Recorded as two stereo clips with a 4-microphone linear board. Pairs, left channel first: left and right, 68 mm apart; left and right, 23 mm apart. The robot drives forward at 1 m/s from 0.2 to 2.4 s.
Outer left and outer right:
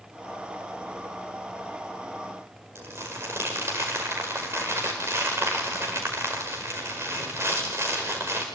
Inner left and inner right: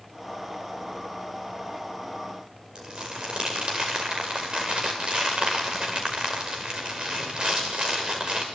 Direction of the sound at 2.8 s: 40° right (ahead or behind).